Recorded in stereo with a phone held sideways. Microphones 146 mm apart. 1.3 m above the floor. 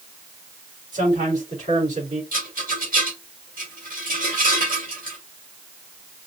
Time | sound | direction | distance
0.9 | a man speaking | 65° right (ahead or behind) | 3.5 m
2.3 | a rattle | 70° right (ahead or behind) | 2 m